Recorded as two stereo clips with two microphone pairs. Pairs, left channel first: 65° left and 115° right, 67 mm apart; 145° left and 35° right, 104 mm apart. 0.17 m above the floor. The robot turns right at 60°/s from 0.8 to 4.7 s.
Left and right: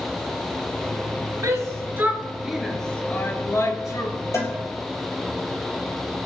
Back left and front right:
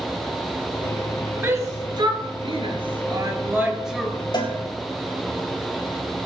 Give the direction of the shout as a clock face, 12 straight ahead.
3 o'clock.